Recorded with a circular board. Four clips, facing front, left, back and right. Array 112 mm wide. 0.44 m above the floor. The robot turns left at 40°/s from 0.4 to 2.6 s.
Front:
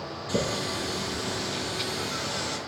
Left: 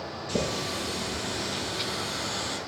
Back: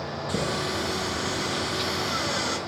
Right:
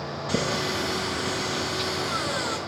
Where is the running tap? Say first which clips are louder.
Right 3 dB, even; 95° right, 2.5 m; by 2.6 s 175° left, 2.5 m.